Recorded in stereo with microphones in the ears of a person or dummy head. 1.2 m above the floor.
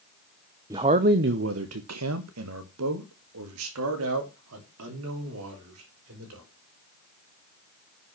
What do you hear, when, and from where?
0.7 s a man speaking: 15° right (ahead or behind), 0.6 m; by 6.4 s 80° right, 4 m